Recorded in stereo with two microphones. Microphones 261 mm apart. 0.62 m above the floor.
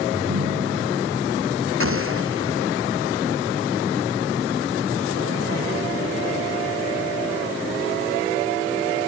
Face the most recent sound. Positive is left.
turn(degrees=-55)  # may be behind; listen again after turning